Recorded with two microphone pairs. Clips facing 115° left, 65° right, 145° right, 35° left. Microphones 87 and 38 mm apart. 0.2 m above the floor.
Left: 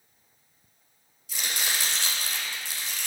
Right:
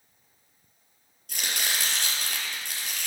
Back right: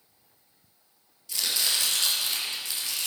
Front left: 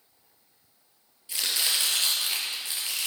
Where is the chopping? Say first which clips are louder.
Even, even; 30° right, 3 m.